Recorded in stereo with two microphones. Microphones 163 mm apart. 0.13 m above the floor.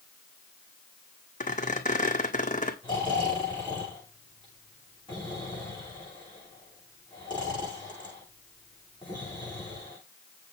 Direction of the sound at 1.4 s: 45° left (ahead or behind).